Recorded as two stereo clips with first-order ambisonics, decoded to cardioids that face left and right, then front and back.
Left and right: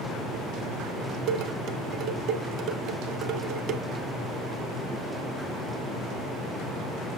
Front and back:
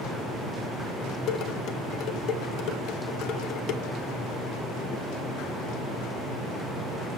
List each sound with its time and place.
1.3 s dishes clattering: 50° right, 0.9 m